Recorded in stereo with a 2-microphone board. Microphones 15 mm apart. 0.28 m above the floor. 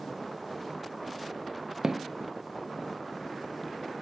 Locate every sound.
1.8 s footsteps: 40° right (ahead or behind), 0.5 m; by 4.0 s 35° left (ahead or behind), 3 m